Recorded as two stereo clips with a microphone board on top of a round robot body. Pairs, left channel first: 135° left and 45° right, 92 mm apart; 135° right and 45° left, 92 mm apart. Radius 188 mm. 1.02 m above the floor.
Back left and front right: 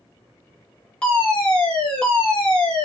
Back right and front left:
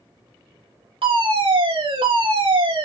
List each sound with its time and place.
1.0 s a fire alarm: 55° left, 5 m